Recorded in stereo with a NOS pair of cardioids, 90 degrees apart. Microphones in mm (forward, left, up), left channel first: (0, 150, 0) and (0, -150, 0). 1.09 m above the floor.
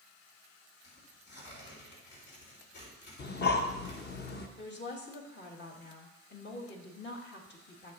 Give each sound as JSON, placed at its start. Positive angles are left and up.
{"t": 0.8, "sound": "tearing paper", "azimuth_deg": 65, "distance_m": 4.0}
{"t": 3.2, "sound": "breathing", "azimuth_deg": 35, "distance_m": 1.1}
{"t": 4.6, "sound": "a woman speaking", "azimuth_deg": 40, "distance_m": 1.7}